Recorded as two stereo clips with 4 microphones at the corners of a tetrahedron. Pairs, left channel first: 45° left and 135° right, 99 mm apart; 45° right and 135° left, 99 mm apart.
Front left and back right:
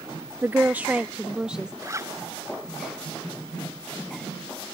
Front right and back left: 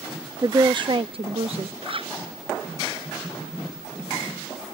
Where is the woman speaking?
170° left; by 1.7 s 145° left.